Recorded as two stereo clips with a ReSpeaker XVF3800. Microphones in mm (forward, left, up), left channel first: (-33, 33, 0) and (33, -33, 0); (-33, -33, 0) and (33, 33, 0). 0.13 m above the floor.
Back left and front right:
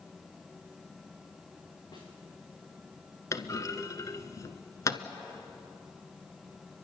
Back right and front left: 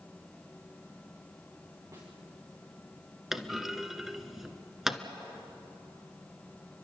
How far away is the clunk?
About 0.9 m.